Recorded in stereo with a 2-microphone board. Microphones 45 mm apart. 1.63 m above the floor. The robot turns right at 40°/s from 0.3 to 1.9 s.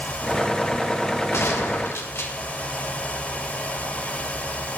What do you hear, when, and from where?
1.3 s a gunshot: 75° left (ahead or behind), 1.6 m; by 2.3 s 65° left (ahead or behind), 1.6 m